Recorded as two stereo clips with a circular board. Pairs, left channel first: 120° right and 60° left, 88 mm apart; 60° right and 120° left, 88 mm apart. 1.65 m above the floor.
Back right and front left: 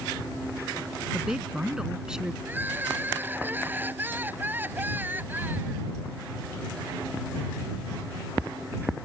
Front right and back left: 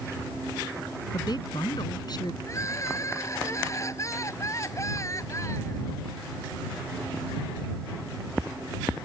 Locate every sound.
1.1 s a woman speaking: 20° right
2.5 s crying: 5° right